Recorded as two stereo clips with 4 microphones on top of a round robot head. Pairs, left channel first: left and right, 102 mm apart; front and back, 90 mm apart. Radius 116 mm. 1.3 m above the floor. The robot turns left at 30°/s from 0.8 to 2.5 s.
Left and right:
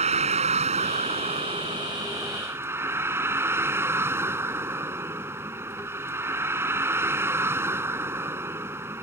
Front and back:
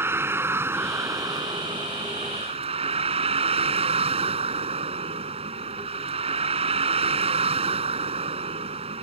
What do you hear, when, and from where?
0.0 s a vehicle: 110° right; by 9.0 s 160° right